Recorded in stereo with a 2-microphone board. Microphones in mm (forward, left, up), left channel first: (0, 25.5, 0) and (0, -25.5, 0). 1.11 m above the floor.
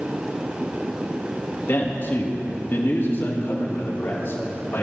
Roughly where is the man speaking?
Left.